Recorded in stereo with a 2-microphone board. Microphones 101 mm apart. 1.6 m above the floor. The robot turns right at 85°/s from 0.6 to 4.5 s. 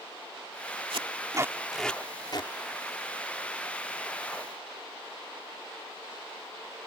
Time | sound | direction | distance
0.9 | tape being pulled | 70° right (ahead or behind) | ?